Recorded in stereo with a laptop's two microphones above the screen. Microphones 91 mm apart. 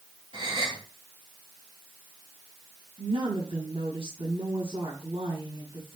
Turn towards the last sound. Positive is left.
turn(degrees=-80)